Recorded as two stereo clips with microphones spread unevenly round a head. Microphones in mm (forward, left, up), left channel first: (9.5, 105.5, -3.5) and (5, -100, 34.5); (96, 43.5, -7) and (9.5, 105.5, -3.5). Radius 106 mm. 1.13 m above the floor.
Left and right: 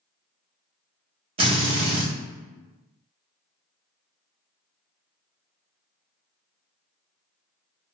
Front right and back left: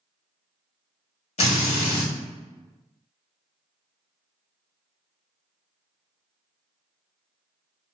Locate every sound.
1.4 s a drill: 30° right, 1.0 m